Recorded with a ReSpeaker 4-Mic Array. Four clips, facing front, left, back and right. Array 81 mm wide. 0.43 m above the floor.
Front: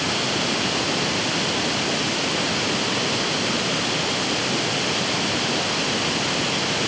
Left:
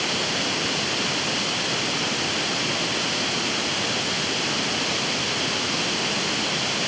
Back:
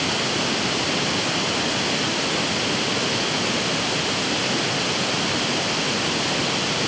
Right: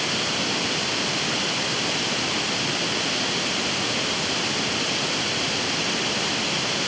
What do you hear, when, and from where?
Only background noise.